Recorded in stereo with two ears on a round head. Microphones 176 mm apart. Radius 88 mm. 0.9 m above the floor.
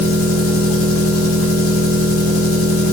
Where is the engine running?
80° left, 2 m.